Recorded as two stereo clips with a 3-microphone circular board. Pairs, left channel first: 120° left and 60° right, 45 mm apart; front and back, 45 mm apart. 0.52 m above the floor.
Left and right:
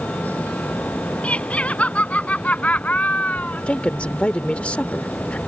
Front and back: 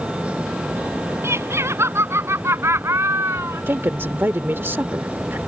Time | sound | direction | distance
1.2 | laughter | straight behind | ?
3.7 | a woman speaking | 175° left | ?